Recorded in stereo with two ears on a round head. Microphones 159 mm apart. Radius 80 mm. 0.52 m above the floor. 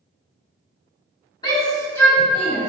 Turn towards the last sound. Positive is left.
turn(degrees=5)  # may be behind; listen again after turning